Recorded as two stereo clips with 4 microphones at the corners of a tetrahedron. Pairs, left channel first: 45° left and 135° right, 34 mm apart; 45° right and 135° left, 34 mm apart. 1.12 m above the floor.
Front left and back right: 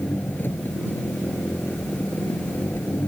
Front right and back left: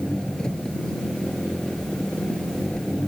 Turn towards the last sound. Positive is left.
turn(degrees=25)